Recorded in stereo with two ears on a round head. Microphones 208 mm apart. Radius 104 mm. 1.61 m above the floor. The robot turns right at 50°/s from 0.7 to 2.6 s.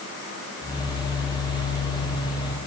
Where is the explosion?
I don't hear an explosion.